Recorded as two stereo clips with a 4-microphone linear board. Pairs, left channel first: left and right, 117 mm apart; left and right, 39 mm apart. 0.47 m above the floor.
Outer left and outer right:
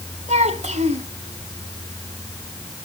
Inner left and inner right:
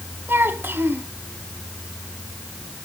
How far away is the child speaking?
About 2.5 m.